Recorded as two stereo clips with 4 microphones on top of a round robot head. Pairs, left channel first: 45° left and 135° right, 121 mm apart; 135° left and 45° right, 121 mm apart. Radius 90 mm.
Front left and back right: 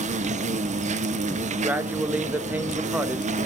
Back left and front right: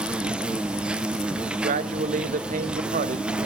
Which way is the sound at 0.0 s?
125° right.